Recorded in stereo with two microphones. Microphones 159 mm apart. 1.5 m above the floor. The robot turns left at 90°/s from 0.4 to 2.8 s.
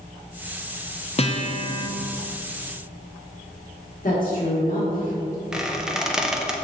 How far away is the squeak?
About 0.7 m.